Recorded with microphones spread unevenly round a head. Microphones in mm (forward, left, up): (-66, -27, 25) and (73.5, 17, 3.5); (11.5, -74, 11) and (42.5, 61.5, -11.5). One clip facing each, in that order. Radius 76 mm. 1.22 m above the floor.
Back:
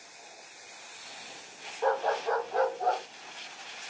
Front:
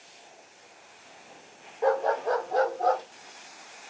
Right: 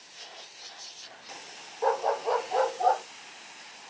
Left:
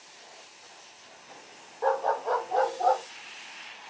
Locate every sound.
1.8 s a dog barking: 60° right, 1.0 m; by 3.0 s 20° right, 1.8 m